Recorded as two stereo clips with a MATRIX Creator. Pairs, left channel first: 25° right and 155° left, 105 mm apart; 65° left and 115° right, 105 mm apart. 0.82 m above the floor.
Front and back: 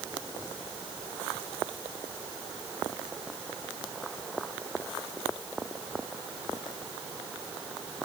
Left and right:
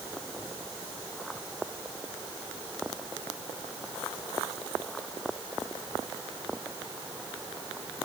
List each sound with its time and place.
Only background noise.